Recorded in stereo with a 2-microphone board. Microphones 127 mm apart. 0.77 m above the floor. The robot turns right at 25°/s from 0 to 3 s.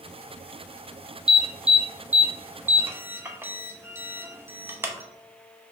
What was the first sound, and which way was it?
An alarm, 5° right (ahead or behind).